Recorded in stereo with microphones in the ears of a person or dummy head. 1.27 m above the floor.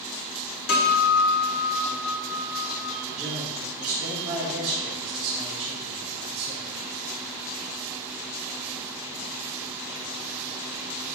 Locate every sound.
0.7 s a guitar: 80° left, 2.5 m
3.1 s a man speaking: 10° right (ahead or behind), 3.5 m